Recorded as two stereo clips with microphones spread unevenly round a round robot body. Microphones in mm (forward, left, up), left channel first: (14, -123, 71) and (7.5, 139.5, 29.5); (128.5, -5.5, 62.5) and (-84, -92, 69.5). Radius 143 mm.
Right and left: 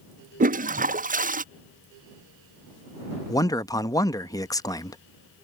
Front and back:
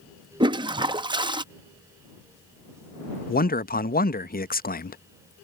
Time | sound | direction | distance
0.4 | a toilet flushing | 135° left | ?
3.3 | a man speaking | 5° right | ?